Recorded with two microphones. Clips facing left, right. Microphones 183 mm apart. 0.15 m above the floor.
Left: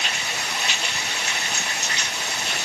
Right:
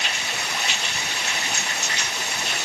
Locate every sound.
Only background noise.